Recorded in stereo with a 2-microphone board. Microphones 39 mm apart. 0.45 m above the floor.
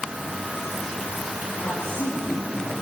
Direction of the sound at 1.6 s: 70° left (ahead or behind).